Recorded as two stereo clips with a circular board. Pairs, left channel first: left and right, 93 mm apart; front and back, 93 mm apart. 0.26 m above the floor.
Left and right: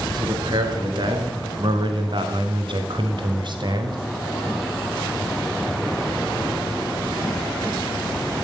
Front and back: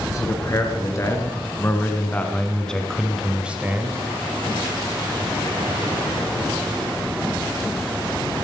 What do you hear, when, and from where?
0.1 s a man speaking: 55° right, 3.5 m; by 4.0 s 120° right, 1.6 m